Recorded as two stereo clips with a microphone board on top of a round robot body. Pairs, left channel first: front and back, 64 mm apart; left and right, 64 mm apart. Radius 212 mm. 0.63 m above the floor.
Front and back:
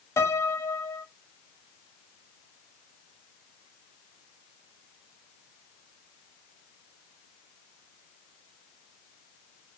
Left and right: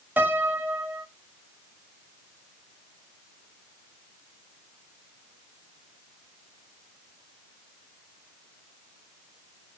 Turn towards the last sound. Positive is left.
turn(degrees=-35)